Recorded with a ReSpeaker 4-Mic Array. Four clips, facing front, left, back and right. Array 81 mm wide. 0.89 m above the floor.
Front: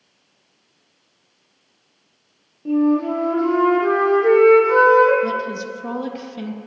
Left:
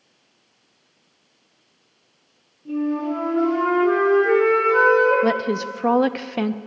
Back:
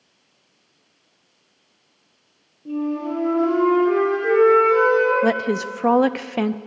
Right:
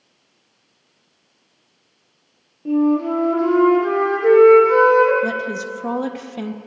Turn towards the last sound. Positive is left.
turn(degrees=155)